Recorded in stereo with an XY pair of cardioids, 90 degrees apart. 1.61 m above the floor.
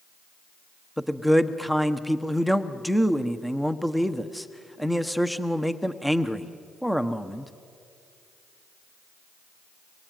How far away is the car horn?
No car horn in this recording.